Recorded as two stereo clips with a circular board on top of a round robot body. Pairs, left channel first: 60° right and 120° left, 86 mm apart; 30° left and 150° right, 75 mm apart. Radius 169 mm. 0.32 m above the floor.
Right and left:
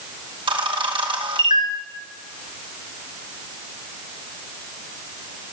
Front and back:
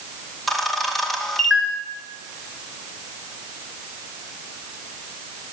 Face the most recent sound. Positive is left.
turn(degrees=120)